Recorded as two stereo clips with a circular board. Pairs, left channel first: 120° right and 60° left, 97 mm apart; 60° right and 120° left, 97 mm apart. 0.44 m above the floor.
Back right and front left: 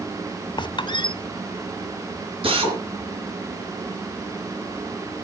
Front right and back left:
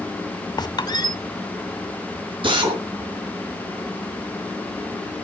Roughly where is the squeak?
Right.